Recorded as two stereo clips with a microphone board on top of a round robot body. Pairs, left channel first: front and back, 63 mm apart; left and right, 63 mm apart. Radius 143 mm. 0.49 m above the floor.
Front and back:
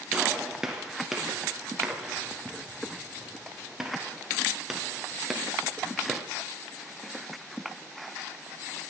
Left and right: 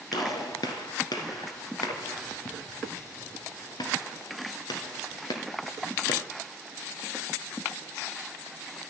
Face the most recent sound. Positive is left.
turn(degrees=95)